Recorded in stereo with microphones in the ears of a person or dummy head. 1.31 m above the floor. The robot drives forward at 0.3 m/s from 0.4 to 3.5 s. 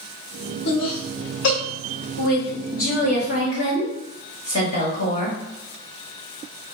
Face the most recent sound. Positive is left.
turn(degrees=35)  # may be behind; listen again after turning